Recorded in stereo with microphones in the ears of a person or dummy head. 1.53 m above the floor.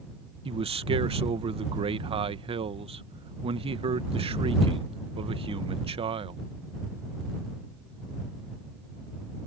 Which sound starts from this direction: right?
A man speaking, at 0.5 s.